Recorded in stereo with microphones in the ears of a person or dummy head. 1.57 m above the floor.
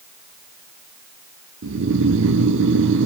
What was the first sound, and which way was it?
Snoring, 75° right (ahead or behind).